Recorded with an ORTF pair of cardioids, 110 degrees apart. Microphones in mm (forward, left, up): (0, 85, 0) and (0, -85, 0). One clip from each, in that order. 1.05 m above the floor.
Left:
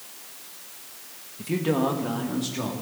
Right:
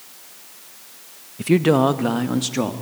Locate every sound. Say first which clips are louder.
1.4 s a man speaking: right 8 dB; 50° right, 0.7 m; by 2.7 s 55° right, 1.8 m